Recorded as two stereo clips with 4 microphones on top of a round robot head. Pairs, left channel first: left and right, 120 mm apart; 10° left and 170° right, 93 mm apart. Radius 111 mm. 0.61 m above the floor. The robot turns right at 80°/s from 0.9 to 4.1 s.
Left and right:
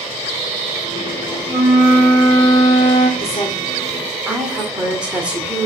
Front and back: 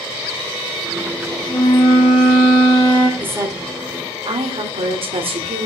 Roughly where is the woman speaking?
Behind left.